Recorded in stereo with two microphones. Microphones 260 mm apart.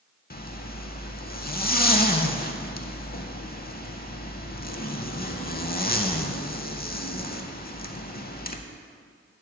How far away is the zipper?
About 0.6 m.